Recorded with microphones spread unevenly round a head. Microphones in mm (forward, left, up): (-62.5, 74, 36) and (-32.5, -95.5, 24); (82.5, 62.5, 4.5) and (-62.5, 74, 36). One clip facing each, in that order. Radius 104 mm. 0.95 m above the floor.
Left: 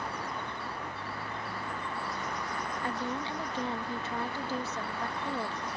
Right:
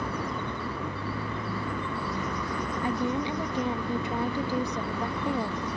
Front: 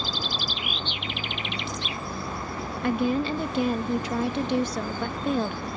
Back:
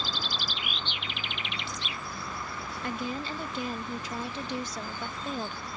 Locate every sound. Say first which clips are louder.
0.0 s a vehicle: right 6 dB, front 4 dB; 80° right; by 5.8 s 70° right
2.8 s a woman speaking: right 8 dB, front 11 dB; 5° right